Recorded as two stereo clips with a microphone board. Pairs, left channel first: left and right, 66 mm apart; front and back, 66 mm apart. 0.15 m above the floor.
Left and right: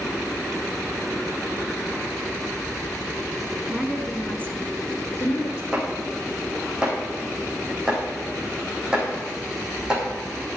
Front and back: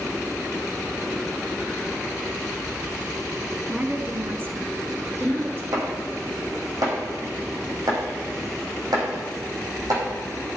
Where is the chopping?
165° right, 5.5 m.